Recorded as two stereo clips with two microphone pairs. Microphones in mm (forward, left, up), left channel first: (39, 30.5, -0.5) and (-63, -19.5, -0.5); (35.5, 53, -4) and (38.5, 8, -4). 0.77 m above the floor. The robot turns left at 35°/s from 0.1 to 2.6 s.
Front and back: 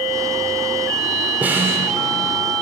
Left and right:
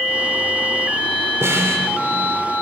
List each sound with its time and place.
1.4 s a snare drum: 80° right, 2.5 m; by 1.9 s 95° right, 2.5 m